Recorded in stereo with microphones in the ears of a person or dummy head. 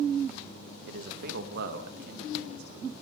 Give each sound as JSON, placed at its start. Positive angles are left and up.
{"t": 0.9, "sound": "a man speaking", "side_deg": -55, "distance_m": 1.7}